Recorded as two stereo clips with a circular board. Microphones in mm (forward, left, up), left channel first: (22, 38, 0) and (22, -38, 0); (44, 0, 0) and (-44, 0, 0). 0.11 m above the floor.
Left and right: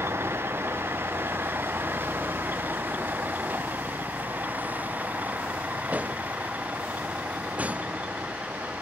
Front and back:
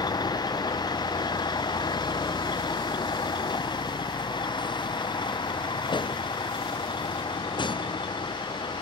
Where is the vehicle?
35° right; by 8.8 s 20° right.